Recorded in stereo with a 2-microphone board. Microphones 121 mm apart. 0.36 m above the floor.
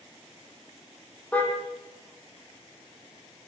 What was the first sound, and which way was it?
A car horn, 10° left (ahead or behind).